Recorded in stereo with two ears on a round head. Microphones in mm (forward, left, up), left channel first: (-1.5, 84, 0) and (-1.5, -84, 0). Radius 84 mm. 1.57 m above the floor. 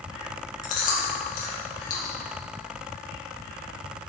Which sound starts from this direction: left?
Chewing, at 0.6 s.